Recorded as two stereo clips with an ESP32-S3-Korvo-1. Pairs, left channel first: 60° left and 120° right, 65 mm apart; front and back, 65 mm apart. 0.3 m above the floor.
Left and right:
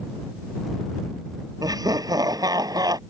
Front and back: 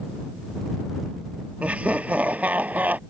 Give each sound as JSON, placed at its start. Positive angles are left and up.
{"t": 1.6, "sound": "laughter", "azimuth_deg": -110}